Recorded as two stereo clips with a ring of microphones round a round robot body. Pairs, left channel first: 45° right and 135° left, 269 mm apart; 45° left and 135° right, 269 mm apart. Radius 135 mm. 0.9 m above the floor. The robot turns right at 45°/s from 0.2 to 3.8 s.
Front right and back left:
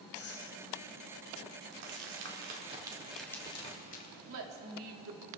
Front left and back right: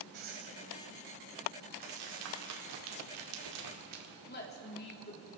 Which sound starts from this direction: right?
Breathing, at 0.1 s.